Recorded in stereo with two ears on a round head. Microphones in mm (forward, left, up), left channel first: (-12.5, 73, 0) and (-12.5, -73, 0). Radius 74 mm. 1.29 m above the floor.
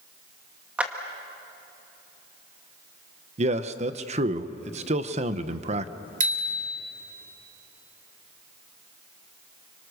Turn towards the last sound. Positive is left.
turn(degrees=-45)  # may be behind; listen again after turning